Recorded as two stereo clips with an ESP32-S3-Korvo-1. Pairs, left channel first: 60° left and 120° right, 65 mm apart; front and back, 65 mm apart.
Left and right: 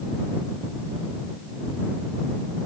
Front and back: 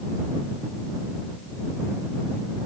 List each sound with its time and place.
Only background noise.